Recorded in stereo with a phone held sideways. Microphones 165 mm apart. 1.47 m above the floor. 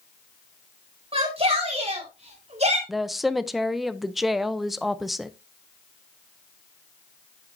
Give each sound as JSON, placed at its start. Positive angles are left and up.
{"t": 1.1, "sound": "a shout", "side_deg": -35, "distance_m": 6.5}
{"t": 2.9, "sound": "a woman speaking", "side_deg": 0, "distance_m": 0.7}